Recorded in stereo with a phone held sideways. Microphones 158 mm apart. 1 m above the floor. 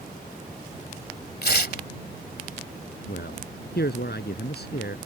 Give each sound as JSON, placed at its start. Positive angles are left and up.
{"t": 1.4, "sound": "tearing paper", "side_deg": 75}
{"t": 3.1, "sound": "a man speaking", "side_deg": 75}